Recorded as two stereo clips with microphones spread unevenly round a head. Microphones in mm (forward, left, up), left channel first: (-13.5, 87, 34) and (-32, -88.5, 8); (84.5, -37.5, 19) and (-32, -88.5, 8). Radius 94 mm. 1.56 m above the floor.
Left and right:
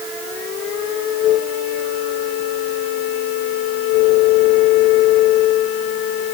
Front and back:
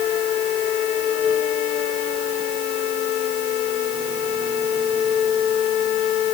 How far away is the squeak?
I don't hear a squeak.